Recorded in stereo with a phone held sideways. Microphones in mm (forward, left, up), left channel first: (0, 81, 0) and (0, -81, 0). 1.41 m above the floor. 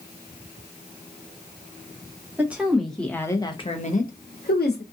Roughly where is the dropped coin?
I don't hear a dropped coin.